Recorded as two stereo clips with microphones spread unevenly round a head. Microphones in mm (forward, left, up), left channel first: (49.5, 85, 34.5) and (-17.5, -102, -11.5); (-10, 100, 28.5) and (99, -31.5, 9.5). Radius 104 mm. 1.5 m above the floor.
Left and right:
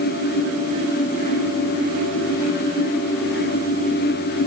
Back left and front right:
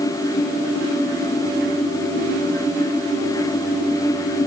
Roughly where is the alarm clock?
No alarm clock in this recording.